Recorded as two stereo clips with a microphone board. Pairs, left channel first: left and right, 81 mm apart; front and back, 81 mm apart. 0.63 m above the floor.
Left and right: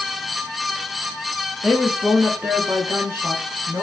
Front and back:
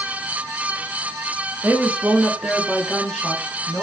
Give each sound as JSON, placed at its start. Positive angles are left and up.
{"t": 1.6, "sound": "a woman speaking", "azimuth_deg": -160, "distance_m": 1.1}